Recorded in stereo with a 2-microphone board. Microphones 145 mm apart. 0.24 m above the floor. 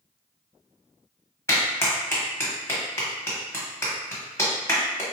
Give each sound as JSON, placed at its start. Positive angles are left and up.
{"t": 1.5, "sound": "a clap", "side_deg": 20, "distance_m": 1.0}